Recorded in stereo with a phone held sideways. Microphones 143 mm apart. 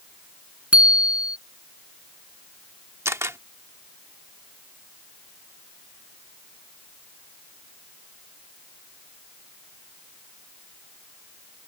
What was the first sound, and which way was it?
A bicycle bell, 10° right (ahead or behind).